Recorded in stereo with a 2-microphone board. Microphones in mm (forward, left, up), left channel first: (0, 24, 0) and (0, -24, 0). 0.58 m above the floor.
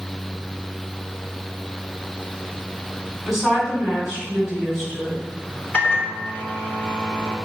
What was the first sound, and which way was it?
A woman speaking, centre (ahead or behind).